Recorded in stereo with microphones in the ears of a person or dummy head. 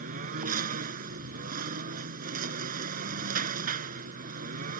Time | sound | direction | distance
0.0 | a lawn mower | 40° right (ahead or behind) | ?